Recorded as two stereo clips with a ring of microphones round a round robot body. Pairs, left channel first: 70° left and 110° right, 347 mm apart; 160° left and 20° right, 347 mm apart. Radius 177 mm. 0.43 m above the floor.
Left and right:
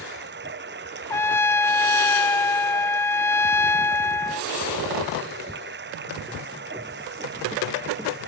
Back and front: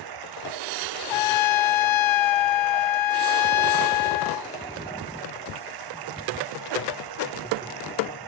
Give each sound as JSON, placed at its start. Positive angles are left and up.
{"t": 0.0, "sound": "running water", "azimuth_deg": -50}
{"t": 1.1, "sound": "a trumpet", "azimuth_deg": 150}